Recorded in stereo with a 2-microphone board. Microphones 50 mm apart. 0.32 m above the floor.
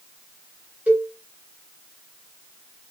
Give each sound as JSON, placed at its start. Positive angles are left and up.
{"t": 0.9, "sound": "a cowbell", "side_deg": -35, "distance_m": 1.4}